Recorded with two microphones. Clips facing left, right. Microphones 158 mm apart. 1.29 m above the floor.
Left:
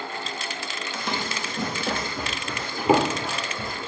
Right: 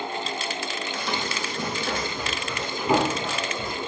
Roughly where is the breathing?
I don't hear breathing.